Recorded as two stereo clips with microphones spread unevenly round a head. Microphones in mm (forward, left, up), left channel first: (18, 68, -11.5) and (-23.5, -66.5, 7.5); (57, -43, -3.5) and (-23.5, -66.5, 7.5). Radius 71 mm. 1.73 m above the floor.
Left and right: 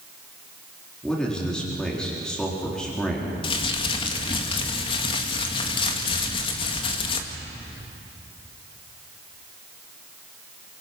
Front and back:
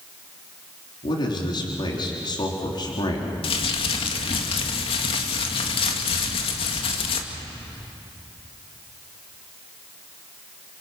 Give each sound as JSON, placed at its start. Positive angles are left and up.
{"t": 1.0, "sound": "a man speaking", "azimuth_deg": -15, "distance_m": 4.0}
{"t": 3.4, "sound": "crumpling", "azimuth_deg": 15, "distance_m": 1.9}